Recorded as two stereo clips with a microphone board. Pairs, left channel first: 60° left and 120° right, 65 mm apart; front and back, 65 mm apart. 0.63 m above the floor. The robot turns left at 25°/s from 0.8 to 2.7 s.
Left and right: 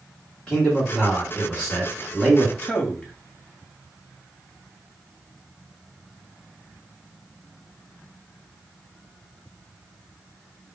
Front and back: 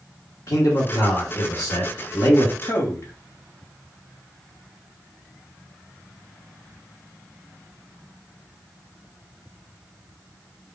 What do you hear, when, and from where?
0.5 s a man speaking: 10° right, 1.7 m; by 2.5 s 55° right, 1.7 m
2.6 s a man speaking: straight ahead, 1.4 m